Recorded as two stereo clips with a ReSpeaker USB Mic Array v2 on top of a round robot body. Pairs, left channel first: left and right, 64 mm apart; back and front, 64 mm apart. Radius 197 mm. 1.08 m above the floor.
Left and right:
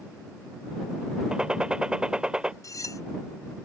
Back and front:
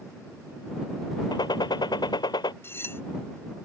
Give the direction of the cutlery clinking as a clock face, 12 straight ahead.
8 o'clock.